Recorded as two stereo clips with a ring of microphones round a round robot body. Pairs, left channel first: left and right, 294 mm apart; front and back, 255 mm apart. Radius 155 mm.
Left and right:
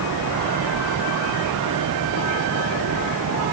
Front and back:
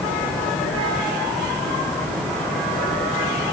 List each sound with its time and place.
Only background noise.